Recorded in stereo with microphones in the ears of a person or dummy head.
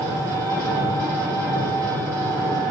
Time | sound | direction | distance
0.0 | an engine running | 15° right (ahead or behind) | 1.1 m